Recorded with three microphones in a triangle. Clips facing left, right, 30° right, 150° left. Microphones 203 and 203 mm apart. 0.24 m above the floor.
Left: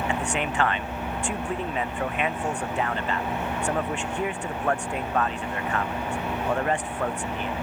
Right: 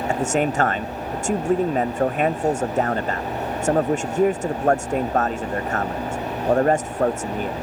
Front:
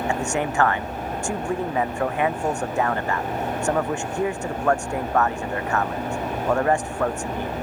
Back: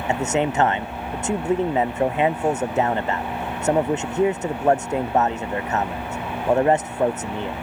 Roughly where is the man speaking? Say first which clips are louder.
Right 7 dB, back 7 dB; behind right.